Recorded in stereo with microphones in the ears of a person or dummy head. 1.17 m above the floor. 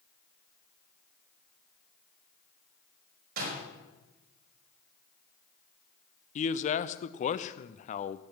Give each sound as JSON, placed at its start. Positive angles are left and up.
{"t": 3.4, "sound": "a door slam", "side_deg": -55, "distance_m": 5.0}
{"t": 6.3, "sound": "a man speaking", "side_deg": 35, "distance_m": 0.6}